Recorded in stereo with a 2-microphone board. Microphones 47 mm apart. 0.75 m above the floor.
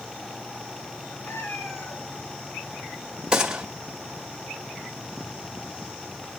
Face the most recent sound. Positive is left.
turn(degrees=-15)  # may be behind; listen again after turning